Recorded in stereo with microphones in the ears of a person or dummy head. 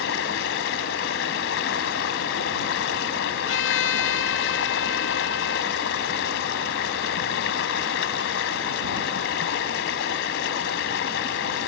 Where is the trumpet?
85° left.